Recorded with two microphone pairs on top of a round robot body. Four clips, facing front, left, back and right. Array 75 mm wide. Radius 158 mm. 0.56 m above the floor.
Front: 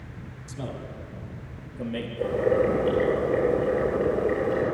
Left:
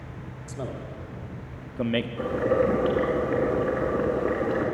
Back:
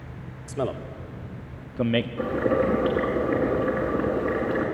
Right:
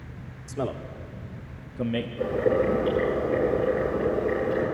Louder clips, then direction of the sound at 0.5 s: Right 5 dB, back 8 dB; 145° right.